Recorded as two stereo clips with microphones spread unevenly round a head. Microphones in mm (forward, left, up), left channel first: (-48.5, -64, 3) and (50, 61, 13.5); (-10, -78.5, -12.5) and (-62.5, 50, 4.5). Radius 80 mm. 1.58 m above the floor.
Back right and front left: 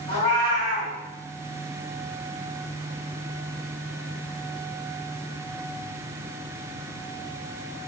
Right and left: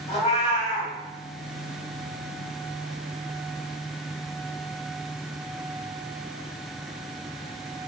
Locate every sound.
0.1 s a cat meowing: 95° right, 1.4 m